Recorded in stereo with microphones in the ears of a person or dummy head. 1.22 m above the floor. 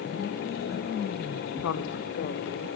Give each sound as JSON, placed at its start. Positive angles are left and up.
{"t": 1.6, "sound": "a woman speaking", "side_deg": 80, "distance_m": 0.6}